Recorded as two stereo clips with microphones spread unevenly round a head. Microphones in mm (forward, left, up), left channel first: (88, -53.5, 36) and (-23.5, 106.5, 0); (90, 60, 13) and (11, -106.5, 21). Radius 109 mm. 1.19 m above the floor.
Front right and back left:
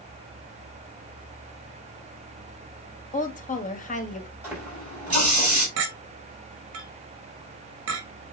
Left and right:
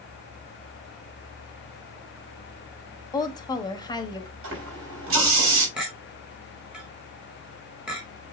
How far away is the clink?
About 1.7 m.